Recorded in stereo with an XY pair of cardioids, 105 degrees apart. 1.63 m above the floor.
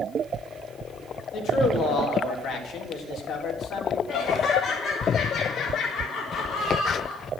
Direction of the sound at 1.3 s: 65° left.